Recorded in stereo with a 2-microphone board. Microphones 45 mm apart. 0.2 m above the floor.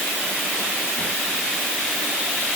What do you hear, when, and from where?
Only background noise.